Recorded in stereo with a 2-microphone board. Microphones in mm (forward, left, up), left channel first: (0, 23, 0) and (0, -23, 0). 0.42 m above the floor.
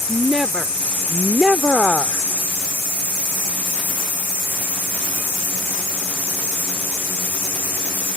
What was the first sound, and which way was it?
A woman speaking, 10° right (ahead or behind).